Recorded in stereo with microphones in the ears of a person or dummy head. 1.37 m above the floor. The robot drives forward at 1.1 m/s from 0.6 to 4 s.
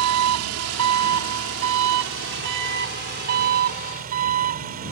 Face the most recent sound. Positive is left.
turn(degrees=-45)  # may be behind; listen again after turning